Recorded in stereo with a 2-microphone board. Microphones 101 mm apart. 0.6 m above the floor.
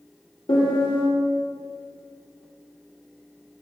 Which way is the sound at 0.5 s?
50° left (ahead or behind).